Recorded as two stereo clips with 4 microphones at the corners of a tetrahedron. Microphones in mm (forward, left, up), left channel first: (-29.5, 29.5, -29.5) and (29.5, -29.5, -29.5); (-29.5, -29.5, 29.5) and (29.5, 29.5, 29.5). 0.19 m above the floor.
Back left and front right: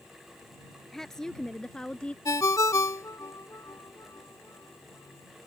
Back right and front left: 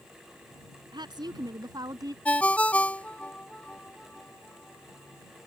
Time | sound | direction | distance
0.9 | a woman speaking | 50° left | ?
2.2 | a ringtone | 160° left | ?